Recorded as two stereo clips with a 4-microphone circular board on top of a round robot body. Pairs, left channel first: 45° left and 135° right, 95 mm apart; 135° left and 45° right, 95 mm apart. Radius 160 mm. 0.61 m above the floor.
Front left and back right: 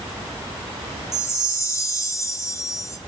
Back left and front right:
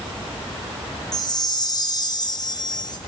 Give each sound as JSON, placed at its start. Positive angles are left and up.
{"t": 1.1, "sound": "a chime", "azimuth_deg": 100, "distance_m": 1.7}